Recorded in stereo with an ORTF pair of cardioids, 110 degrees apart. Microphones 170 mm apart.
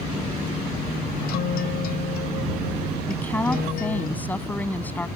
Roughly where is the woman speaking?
Ahead.